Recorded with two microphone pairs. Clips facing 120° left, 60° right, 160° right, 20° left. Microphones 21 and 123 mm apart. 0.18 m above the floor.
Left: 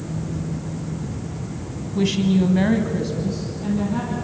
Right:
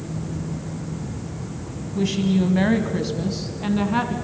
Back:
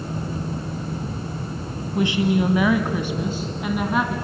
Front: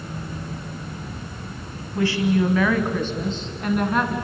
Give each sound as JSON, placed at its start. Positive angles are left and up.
{"t": 1.9, "sound": "a woman speaking", "azimuth_deg": 160, "distance_m": 1.7}